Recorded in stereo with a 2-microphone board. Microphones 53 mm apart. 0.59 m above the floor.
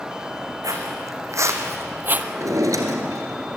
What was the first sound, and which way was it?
Footsteps, 70° right (ahead or behind).